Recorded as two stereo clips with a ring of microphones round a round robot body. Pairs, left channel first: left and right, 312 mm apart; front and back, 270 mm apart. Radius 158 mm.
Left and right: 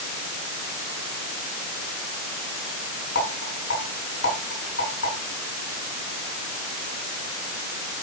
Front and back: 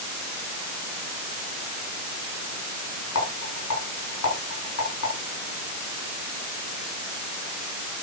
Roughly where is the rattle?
Ahead left.